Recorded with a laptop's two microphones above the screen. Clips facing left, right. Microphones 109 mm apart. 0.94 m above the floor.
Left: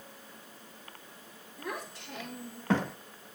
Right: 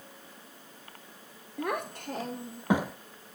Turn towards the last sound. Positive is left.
turn(degrees=-5)  # may be behind; listen again after turning